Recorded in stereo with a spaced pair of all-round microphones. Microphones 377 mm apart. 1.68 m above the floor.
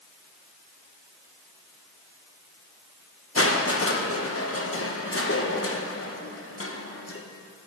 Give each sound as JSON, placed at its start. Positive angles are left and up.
{"t": 3.4, "sound": "crushing", "side_deg": 35, "distance_m": 1.0}